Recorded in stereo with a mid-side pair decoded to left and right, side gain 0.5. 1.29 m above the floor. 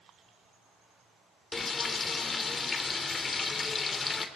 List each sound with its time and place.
1.5 s frying: 35° left, 2.5 m